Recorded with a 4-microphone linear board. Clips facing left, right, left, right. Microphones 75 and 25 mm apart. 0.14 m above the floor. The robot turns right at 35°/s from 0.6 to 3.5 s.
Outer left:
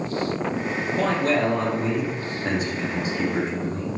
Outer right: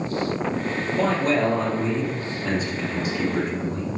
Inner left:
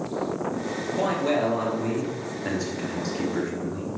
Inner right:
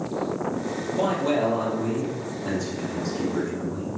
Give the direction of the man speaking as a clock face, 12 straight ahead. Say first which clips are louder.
Outer right 1 dB, inner right 1 dB; 10 o'clock.